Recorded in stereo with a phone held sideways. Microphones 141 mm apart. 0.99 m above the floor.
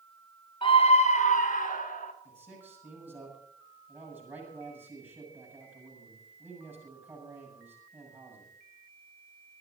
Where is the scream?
35° left (ahead or behind), 1.2 m; by 2.1 s 75° left (ahead or behind), 3 m.